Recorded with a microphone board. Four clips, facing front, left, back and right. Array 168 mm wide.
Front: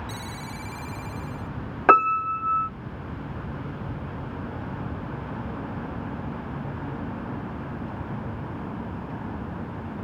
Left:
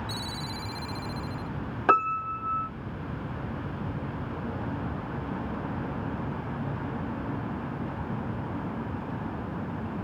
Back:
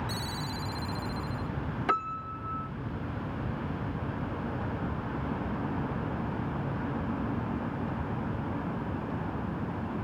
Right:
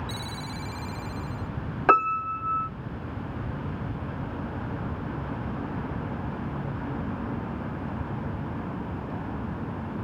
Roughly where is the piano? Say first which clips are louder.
Right 2 dB, front 14 dB; ahead.